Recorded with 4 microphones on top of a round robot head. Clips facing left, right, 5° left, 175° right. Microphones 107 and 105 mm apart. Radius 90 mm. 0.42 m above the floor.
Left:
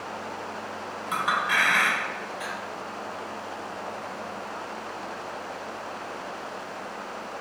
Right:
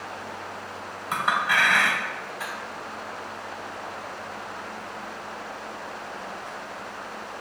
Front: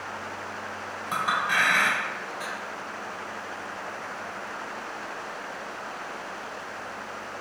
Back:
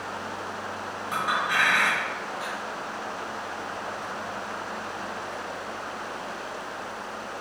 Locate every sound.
1.1 s a clink: 35° right, 1.6 m